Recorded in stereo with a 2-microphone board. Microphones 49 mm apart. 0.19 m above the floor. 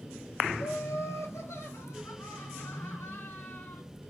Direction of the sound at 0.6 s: 70° left (ahead or behind).